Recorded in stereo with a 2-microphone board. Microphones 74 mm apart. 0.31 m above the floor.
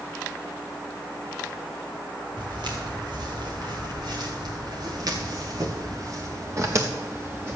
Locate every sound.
2.4 s footsteps: 85° right, 3 m; by 7.6 s 30° right (ahead or behind), 2.0 m